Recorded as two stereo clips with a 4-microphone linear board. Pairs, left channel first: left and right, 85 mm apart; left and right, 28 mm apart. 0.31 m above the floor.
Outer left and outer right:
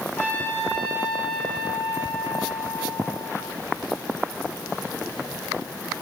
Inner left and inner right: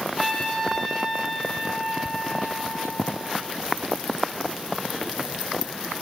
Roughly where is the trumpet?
Left.